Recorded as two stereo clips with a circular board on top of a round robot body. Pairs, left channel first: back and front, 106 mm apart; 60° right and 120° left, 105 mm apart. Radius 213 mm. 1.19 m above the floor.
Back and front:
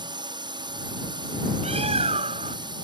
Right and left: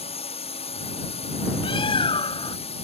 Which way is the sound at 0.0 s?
45° right.